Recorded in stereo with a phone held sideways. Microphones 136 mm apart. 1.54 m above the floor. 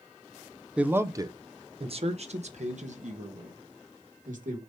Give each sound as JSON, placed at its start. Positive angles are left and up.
{"t": 0.8, "sound": "a man speaking", "side_deg": -10, "distance_m": 0.7}